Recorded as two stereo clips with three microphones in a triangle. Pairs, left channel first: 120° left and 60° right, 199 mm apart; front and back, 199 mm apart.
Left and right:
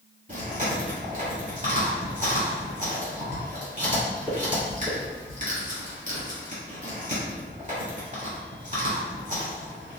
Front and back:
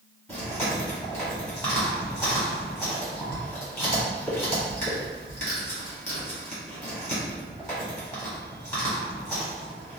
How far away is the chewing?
About 1.6 m.